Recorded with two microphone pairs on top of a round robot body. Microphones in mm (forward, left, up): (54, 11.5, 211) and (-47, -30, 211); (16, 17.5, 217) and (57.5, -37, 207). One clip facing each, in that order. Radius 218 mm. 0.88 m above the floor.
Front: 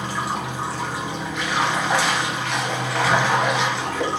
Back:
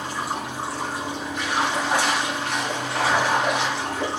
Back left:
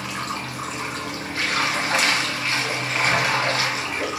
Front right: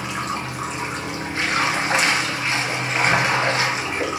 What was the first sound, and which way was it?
Running water, 15° left.